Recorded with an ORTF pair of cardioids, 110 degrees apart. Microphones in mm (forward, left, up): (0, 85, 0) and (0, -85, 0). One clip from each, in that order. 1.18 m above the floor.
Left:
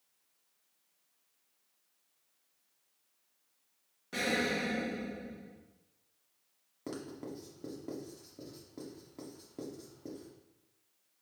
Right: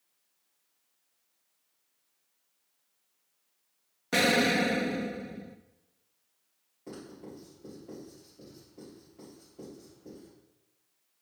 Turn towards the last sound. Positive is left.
turn(degrees=65)